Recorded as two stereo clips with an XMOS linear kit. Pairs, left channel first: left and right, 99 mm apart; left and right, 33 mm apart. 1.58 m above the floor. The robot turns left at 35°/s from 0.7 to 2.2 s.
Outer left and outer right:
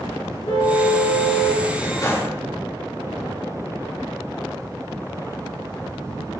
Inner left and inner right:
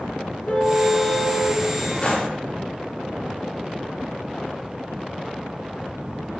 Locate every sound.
0.5 s a car horn: 115° left, 8 m; by 1.6 s 80° left, 8 m
2.0 s a gunshot: 35° left (ahead or behind), 4 m; by 2.3 s 25° left (ahead or behind), 4 m